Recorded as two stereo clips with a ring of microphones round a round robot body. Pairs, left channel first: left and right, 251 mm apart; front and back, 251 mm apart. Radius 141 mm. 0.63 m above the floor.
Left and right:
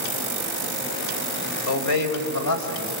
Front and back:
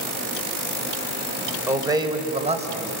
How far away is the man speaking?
About 3.5 m.